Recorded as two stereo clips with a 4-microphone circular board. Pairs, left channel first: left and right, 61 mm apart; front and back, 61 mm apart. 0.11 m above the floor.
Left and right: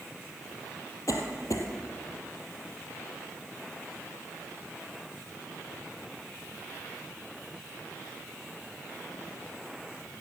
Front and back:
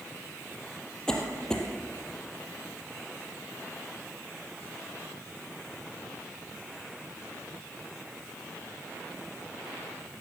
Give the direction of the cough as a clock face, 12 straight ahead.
9 o'clock.